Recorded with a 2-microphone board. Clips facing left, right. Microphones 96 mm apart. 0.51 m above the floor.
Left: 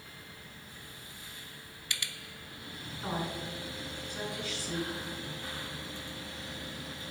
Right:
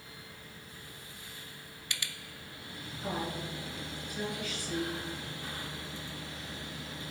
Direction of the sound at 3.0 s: 30° left (ahead or behind).